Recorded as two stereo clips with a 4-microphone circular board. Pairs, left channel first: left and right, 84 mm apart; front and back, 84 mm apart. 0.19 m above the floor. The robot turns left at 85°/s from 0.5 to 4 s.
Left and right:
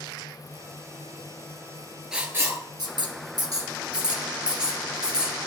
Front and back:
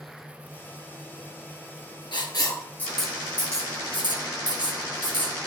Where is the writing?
10° right, 1.8 m; by 5.4 s 170° right, 1.8 m.